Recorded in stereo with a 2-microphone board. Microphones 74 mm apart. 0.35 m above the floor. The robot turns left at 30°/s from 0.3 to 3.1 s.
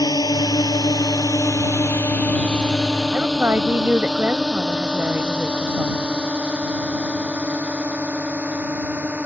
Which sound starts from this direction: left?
A drone, at 0.0 s.